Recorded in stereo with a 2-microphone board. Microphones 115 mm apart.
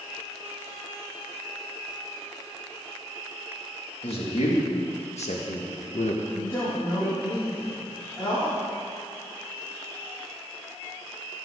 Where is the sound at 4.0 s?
70° left (ahead or behind), 2.5 m; by 6.2 s 75° left (ahead or behind), 1.3 m.